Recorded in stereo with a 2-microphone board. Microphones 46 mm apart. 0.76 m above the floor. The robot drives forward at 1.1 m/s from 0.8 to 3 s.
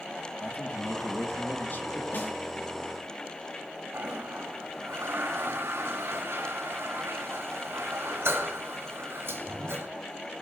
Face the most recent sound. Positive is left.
turn(degrees=-70)  # may be behind; listen again after turning